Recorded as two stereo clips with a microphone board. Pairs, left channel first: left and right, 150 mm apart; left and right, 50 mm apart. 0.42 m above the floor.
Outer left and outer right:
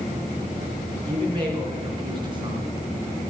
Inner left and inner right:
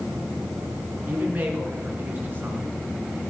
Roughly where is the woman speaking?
Right.